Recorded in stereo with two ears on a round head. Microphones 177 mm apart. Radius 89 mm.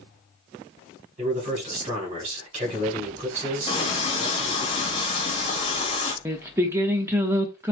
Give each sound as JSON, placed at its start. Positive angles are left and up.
{"t": 1.2, "sound": "a man speaking", "side_deg": -35, "distance_m": 1.9}
{"t": 3.7, "sound": "a running tap", "side_deg": 30, "distance_m": 1.3}
{"t": 6.2, "sound": "singing", "side_deg": -10, "distance_m": 0.6}